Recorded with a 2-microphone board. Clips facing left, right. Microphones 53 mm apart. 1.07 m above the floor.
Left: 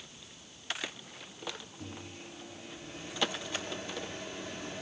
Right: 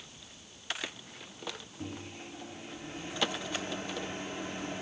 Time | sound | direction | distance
1.8 | a microwave | 35° right (ahead or behind) | 1.4 m